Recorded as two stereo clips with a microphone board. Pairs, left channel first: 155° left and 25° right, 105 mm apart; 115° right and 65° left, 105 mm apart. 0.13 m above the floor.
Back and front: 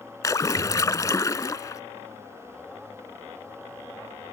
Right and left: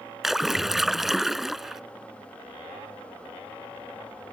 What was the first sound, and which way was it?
A splash, 150° left.